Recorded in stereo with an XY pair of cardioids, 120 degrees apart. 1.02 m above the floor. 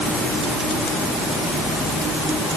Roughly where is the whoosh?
I don't hear a whoosh.